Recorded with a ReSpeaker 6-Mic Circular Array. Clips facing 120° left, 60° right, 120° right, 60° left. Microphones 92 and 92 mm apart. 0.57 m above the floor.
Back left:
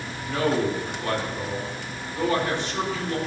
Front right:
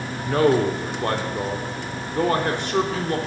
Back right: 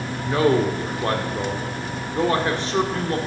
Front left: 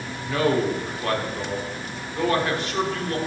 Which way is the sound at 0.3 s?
65° right.